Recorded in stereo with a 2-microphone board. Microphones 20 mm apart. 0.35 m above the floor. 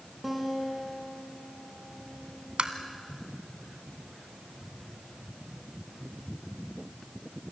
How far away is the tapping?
About 1.5 m.